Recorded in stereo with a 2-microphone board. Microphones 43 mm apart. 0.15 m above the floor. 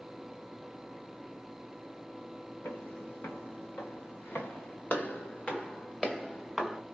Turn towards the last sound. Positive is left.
turn(degrees=0)  # may be behind; listen again after turning